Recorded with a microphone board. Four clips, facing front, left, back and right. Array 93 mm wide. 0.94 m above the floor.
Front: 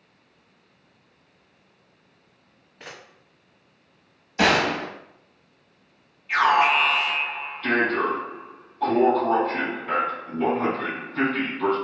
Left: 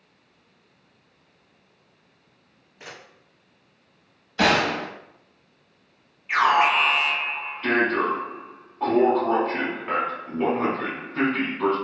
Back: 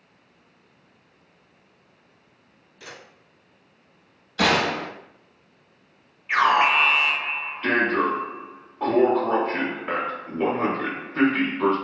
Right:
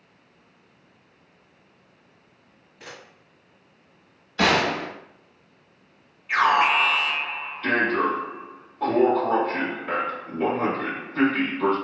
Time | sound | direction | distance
2.8 | a camera shutter | 15° left | 0.7 m
4.4 | a gunshot | straight ahead | 0.8 m
6.3 | an alarm | 145° left | 1.0 m